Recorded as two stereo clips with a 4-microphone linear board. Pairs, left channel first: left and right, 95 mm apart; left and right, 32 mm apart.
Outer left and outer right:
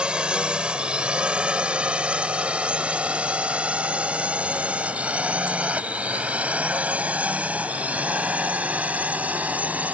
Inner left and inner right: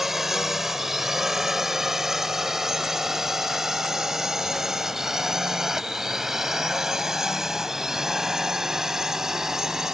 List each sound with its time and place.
0.0 s a drone: 10° right (ahead or behind); by 9.9 s 15° right (ahead or behind)